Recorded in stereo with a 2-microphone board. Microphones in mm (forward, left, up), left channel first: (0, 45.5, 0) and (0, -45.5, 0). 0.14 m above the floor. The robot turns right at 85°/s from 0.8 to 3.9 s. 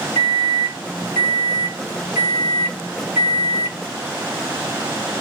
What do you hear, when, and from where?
0.1 s a microwave: 5° right (ahead or behind), 1.2 m; by 3.8 s 25° right (ahead or behind), 1.2 m